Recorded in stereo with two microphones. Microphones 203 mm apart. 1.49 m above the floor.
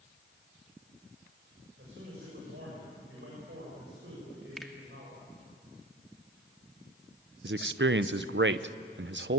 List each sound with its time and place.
1.8 s a man speaking: 70° right (ahead or behind), 6.5 m
4.6 s a finger snap: centre (ahead or behind), 2 m
7.4 s a man speaking: 65° right (ahead or behind), 0.7 m